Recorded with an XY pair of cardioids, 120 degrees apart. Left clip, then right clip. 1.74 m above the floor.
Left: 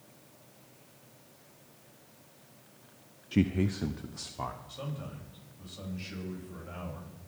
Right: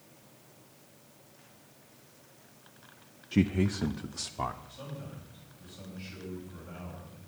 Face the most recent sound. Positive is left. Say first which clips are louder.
# left 3 dB
turn(degrees=45)